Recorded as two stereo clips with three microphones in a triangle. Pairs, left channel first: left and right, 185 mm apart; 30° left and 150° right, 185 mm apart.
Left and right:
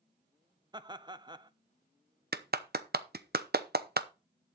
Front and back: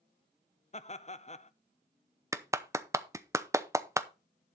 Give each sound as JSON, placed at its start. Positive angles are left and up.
{"t": 0.7, "sound": "laughter", "azimuth_deg": -25, "distance_m": 0.7}
{"t": 2.3, "sound": "a clap", "azimuth_deg": -75, "distance_m": 0.8}